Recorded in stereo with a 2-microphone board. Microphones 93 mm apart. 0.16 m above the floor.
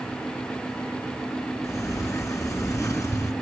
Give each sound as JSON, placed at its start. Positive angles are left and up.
{"t": 1.6, "sound": "a sliding door", "side_deg": 35, "distance_m": 2.5}